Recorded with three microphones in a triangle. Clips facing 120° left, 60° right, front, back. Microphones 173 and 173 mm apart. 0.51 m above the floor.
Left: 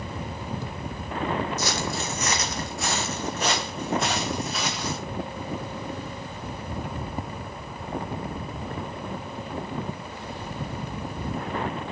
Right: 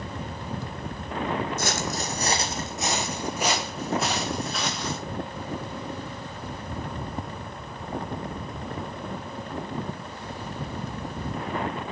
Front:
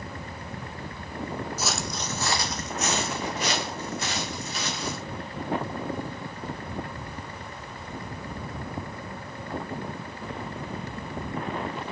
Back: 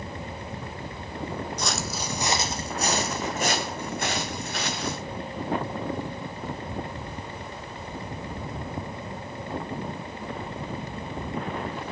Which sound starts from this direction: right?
Footsteps, at 1.6 s.